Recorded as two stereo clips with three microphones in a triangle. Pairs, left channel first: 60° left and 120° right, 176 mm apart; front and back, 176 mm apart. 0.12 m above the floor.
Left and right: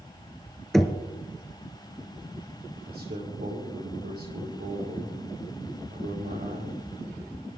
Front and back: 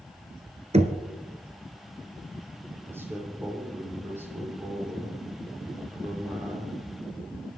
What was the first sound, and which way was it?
Knocking, 145° left.